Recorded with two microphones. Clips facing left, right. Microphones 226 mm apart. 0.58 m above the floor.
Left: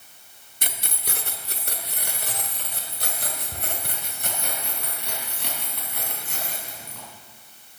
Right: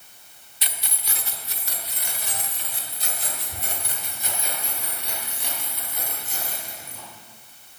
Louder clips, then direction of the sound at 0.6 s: Left 4 dB; 50° left (ahead or behind).